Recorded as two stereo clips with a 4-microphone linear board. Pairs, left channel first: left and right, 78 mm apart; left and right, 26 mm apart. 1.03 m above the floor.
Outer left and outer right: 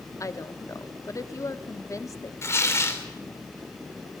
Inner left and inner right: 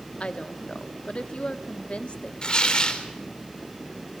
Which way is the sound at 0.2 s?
45° left (ahead or behind).